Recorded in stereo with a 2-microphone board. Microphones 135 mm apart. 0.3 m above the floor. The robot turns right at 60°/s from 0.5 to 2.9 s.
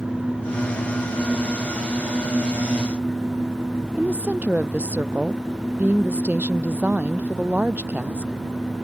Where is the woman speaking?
10° right (ahead or behind).